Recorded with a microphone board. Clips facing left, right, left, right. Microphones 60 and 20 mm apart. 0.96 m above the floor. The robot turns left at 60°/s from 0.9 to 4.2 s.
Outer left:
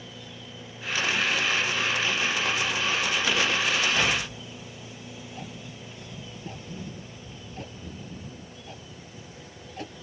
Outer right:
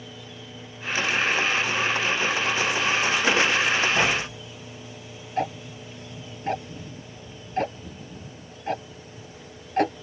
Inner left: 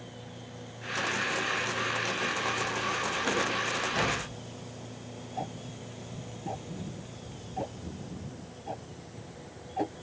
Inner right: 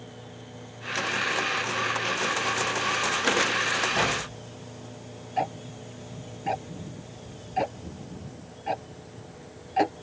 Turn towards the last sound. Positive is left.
turn(degrees=-60)  # may be behind; listen again after turning